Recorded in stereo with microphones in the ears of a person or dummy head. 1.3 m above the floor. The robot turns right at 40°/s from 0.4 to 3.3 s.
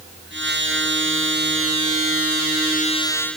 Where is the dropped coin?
No dropped coin in this recording.